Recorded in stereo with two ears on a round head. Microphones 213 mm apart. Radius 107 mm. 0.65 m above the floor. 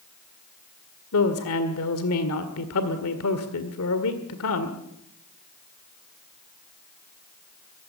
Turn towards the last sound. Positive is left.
turn(degrees=65)  # may be behind; listen again after turning